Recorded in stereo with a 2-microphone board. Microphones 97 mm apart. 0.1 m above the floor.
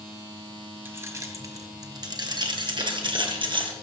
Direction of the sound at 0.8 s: 25° right (ahead or behind).